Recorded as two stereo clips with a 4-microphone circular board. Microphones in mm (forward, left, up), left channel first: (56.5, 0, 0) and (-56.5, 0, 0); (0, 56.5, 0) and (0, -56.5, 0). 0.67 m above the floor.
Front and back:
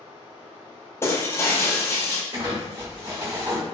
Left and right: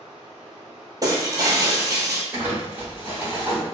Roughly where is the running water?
Behind.